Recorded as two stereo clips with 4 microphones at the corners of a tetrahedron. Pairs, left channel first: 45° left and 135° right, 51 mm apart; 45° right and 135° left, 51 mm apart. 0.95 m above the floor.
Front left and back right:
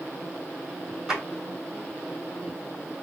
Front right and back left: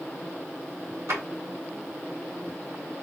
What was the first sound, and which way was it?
A drawer, 145° left.